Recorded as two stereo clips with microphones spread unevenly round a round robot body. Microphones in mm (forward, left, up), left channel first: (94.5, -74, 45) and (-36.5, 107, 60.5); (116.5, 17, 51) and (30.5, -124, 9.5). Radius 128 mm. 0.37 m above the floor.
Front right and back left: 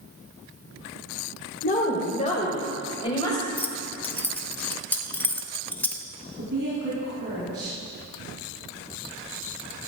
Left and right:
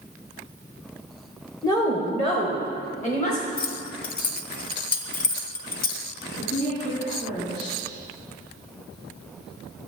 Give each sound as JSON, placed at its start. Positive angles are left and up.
{"t": 1.6, "sound": "a woman speaking", "azimuth_deg": -20, "distance_m": 1.5}
{"t": 3.6, "sound": "keys jangling", "azimuth_deg": 25, "distance_m": 0.9}
{"t": 6.4, "sound": "a woman speaking", "azimuth_deg": 85, "distance_m": 3.5}